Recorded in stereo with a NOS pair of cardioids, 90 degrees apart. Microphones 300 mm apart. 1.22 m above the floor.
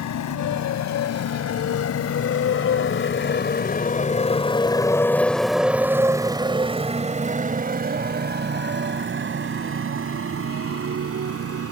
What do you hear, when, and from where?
0.0 s a motorcycle: 70° left; by 11.7 s 50° right